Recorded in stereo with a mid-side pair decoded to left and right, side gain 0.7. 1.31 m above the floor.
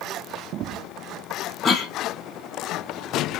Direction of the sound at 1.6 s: 35° left.